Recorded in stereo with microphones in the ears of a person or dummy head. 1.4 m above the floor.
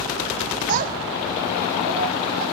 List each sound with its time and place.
0.7 s a child speaking: 45° right (ahead or behind), 0.9 m; by 2.4 s 50° right (ahead or behind), 3 m